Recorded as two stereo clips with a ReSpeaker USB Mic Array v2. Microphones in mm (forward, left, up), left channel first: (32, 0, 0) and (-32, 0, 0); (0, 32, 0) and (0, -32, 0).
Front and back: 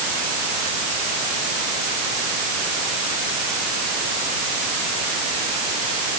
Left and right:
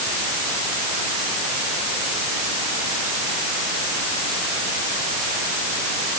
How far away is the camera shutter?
No camera shutter in this recording.